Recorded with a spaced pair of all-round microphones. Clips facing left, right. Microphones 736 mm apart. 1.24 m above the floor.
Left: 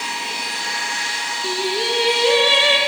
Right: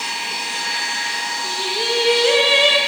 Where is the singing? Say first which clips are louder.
Left 3 dB; 20° right (ahead or behind), 4 m.